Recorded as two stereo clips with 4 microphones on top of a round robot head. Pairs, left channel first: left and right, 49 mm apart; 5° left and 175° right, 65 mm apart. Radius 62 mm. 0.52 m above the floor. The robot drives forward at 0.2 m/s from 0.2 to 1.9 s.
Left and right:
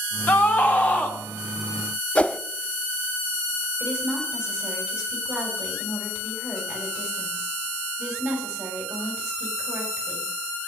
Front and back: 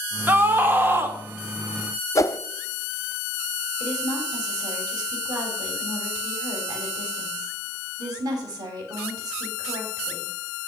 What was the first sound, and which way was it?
A scream, 135° left.